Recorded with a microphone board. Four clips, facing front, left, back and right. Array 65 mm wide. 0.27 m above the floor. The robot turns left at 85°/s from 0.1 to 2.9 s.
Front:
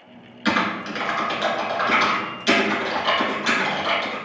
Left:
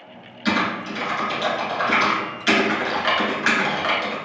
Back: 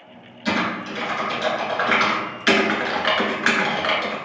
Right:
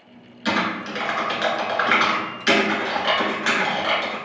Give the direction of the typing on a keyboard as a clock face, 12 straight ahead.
12 o'clock.